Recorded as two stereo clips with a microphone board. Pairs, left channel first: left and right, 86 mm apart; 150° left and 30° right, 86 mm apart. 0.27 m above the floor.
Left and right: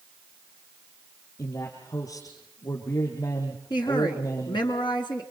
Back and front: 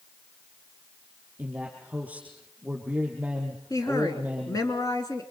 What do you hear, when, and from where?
1.4 s a man speaking: 45° left, 5.5 m
3.7 s a woman speaking: 105° left, 3 m